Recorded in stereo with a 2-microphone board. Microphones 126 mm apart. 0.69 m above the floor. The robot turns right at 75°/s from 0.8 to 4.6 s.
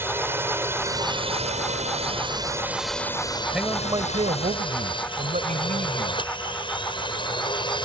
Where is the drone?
15° right (ahead or behind); by 7.8 s 40° left (ahead or behind).